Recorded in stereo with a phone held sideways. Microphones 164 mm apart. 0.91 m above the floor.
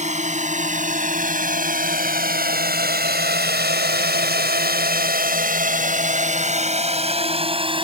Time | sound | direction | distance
0.0 | a drone | 45° right (ahead or behind) | ?